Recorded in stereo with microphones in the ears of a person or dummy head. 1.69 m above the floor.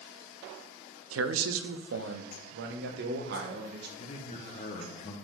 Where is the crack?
No crack in this recording.